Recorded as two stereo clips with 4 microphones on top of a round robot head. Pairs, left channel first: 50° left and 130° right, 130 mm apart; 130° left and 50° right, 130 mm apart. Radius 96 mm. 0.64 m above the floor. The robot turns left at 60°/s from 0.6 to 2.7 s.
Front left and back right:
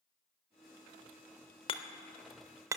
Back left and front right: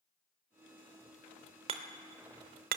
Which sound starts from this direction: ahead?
Hammering, at 1.7 s.